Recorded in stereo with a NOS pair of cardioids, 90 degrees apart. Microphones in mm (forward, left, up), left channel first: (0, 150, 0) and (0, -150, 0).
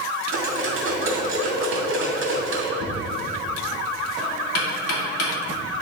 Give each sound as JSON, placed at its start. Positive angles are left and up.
{"t": 0.3, "sound": "cutlery clinking", "azimuth_deg": -45, "distance_m": 1.9}
{"t": 2.8, "sound": "knocking", "azimuth_deg": 55, "distance_m": 2.0}